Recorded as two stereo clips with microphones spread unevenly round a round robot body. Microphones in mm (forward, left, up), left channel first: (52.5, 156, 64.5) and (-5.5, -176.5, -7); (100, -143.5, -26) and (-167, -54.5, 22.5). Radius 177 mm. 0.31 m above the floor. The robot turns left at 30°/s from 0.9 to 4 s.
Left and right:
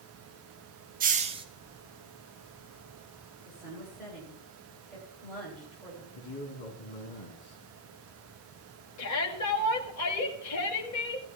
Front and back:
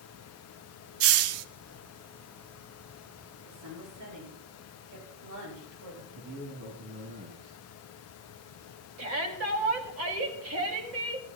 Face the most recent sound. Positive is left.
turn(degrees=120)